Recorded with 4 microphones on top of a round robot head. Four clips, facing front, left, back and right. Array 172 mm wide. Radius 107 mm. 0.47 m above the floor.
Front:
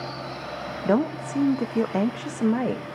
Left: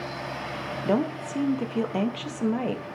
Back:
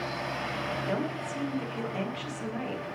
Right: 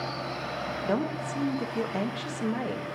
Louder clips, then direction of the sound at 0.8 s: Left 4 dB, front 13 dB; 20° left.